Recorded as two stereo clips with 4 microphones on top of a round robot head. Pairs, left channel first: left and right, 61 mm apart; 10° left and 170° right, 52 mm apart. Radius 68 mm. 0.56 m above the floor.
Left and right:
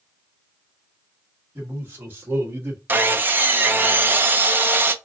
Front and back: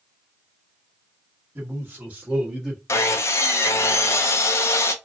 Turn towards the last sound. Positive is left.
turn(degrees=-30)